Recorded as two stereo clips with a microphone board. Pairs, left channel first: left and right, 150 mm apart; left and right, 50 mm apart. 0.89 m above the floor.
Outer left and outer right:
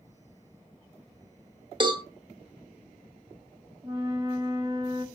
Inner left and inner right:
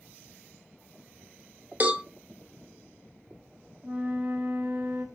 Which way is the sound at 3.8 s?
25° right (ahead or behind).